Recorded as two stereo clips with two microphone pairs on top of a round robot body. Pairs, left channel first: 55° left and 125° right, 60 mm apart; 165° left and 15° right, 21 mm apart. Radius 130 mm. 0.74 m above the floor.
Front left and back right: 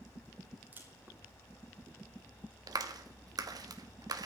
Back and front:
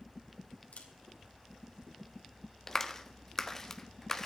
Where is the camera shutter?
170° left, 3 m.